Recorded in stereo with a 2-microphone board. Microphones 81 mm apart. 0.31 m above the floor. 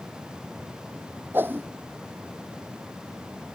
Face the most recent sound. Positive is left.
turn(degrees=-25)  # may be behind; listen again after turning